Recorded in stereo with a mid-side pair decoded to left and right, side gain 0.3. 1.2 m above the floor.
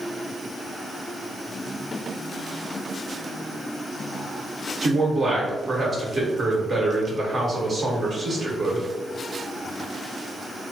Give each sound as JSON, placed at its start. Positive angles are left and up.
{"t": 4.8, "sound": "a man speaking", "azimuth_deg": -55, "distance_m": 1.4}